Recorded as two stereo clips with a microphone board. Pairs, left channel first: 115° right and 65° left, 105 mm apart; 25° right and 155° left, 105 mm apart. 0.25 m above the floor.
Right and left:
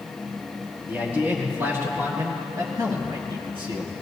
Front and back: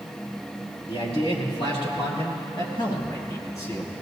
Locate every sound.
0.9 s a man speaking: 5° right, 4 m; by 3.9 s 40° left, 2.5 m